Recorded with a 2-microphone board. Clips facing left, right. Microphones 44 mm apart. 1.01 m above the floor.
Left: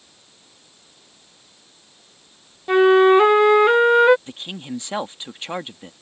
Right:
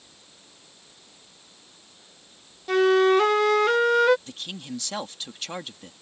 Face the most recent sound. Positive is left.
turn(degrees=25)  # may be behind; listen again after turning